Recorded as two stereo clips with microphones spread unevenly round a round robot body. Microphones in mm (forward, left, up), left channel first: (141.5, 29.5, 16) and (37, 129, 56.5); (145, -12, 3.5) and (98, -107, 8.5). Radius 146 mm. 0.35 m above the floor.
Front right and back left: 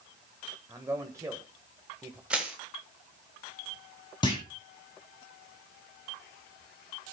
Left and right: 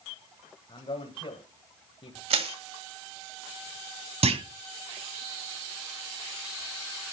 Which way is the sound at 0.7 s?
60° left.